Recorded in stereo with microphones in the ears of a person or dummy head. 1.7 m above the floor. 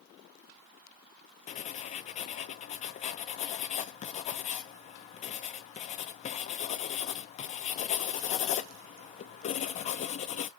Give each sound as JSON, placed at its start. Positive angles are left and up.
{"t": 1.5, "sound": "writing", "side_deg": 40, "distance_m": 0.6}